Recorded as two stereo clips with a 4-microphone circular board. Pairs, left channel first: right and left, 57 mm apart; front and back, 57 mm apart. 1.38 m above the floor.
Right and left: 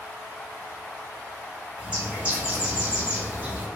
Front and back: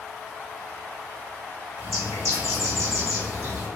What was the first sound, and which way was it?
A bird, 155° left.